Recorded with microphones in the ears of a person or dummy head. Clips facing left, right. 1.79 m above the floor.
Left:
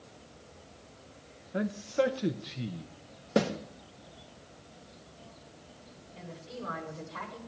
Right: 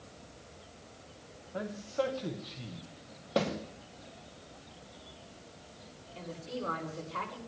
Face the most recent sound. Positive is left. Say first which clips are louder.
# right 4 dB
turn(degrees=-55)  # may be behind; listen again after turning